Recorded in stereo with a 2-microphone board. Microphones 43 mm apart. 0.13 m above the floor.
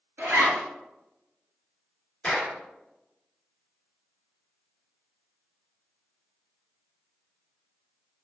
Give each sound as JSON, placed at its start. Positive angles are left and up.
{"t": 0.2, "sound": "a zipper", "side_deg": -60, "distance_m": 1.0}
{"t": 2.2, "sound": "a clap", "side_deg": 25, "distance_m": 1.8}